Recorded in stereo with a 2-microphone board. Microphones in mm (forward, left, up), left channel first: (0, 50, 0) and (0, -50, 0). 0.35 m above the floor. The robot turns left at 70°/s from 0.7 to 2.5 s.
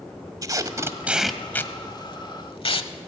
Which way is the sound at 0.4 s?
35° right (ahead or behind).